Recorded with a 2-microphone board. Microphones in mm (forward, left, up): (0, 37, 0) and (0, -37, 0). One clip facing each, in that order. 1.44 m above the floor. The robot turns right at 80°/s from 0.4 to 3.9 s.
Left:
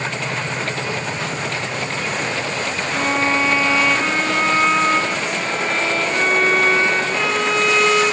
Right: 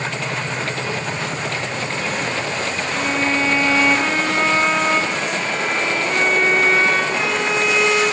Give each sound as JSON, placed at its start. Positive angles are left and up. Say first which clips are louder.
{"t": 2.9, "sound": "a violin", "louder": "left 2 dB", "azimuth_deg": 115, "distance_m": 1.1}